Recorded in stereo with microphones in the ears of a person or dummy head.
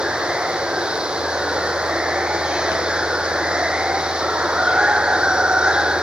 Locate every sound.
0.0 s running water: 5° right (ahead or behind)